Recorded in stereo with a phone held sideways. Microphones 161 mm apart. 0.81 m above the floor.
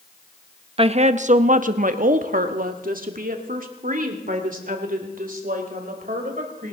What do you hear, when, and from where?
0.8 s a woman speaking: 35° right (ahead or behind), 0.7 m; by 6.7 s 60° right (ahead or behind), 4 m